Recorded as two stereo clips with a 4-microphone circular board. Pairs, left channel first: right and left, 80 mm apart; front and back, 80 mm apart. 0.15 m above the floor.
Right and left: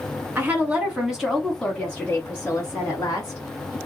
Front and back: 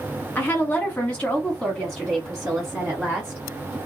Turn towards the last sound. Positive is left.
turn(degrees=-100)